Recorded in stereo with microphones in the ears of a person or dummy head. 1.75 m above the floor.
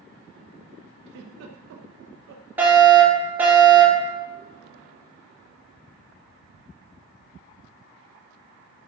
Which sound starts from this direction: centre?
A fire alarm, at 2.6 s.